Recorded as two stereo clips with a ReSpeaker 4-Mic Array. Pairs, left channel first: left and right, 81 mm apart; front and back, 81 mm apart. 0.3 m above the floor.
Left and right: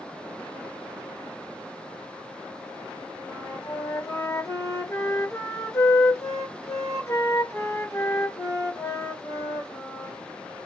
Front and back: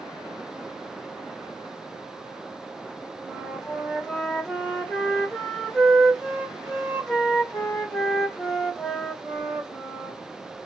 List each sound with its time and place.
3.2 s a flute: 80° left, 1.5 m